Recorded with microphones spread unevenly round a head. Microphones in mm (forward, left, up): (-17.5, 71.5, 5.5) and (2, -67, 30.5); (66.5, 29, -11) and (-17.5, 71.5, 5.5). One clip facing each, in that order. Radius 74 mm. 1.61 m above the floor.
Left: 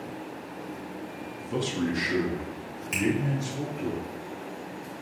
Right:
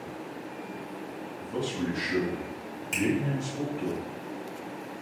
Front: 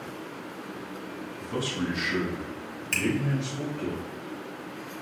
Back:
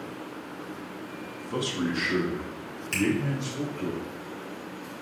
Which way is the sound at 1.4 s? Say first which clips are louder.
Left 2 dB, back 1 dB; 75° left.